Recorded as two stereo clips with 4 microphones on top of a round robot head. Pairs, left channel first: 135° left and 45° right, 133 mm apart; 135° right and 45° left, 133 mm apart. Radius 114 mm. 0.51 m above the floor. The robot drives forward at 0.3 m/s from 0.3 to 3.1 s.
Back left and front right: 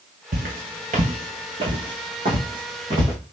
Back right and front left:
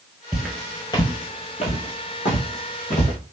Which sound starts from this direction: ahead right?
Footsteps, at 0.3 s.